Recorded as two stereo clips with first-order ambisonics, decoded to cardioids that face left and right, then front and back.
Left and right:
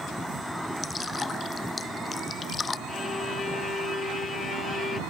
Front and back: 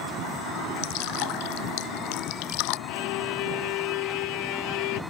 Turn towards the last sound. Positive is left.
turn(degrees=15)